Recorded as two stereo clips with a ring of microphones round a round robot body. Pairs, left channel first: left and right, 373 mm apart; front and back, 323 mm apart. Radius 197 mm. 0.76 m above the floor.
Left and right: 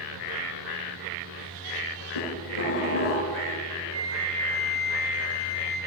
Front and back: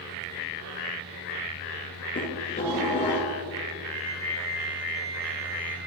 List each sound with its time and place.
2.1 s dishes clattering: 65° left, 8 m
3.9 s a flute: 145° right, 6.5 m